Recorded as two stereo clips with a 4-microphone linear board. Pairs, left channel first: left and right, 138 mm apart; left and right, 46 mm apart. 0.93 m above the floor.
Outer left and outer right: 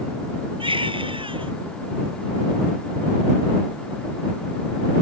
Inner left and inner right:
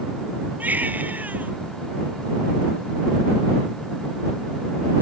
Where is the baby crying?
40° right (ahead or behind).